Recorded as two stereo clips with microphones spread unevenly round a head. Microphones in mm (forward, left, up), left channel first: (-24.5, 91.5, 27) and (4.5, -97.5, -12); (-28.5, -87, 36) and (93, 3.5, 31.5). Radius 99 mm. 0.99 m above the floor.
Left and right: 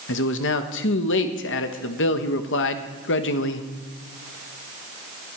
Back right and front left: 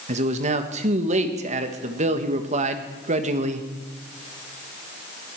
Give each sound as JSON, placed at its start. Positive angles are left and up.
{"t": 0.1, "sound": "a man speaking", "azimuth_deg": 75, "distance_m": 1.3}